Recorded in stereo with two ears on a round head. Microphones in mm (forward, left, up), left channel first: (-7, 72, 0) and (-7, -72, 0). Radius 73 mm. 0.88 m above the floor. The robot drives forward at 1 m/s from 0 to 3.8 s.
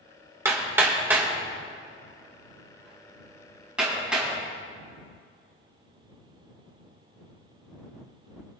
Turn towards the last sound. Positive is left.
turn(degrees=-5)  # may be behind; listen again after turning